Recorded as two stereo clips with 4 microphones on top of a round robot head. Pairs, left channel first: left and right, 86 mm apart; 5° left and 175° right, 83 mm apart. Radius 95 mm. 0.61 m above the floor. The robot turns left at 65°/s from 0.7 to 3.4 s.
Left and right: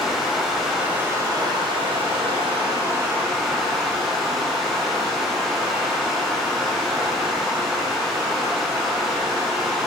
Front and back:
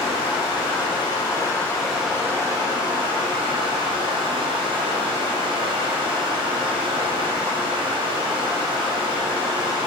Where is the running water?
5° right, 1.2 m; by 9.9 s straight behind, 1.2 m.